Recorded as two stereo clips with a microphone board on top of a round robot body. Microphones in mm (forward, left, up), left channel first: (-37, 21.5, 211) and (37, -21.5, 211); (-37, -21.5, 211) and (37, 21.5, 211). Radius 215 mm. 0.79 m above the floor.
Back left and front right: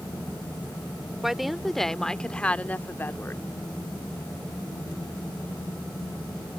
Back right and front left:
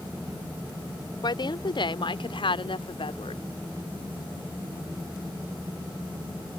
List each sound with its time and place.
1.2 s a woman speaking: 115° right; by 3.4 s 150° right